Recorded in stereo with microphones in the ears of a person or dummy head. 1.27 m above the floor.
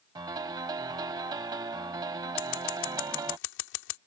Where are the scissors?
65° left (ahead or behind).